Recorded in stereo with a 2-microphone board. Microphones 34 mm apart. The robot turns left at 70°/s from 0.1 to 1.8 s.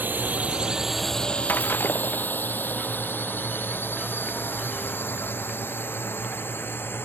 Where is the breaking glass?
60° left (ahead or behind); by 2.3 s 80° left.